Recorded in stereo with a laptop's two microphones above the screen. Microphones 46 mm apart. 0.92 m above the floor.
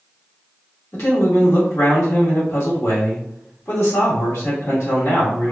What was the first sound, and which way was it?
A man speaking, 70° left (ahead or behind).